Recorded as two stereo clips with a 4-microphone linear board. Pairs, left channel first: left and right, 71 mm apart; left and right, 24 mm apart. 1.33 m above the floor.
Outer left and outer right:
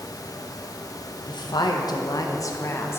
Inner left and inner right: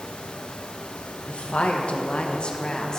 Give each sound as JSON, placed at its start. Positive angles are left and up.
{"t": 1.3, "sound": "a woman speaking", "side_deg": 85, "distance_m": 1.1}